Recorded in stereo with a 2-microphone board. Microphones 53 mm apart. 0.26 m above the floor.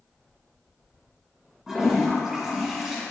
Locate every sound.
1.7 s a toilet flushing: 10° right (ahead or behind), 2 m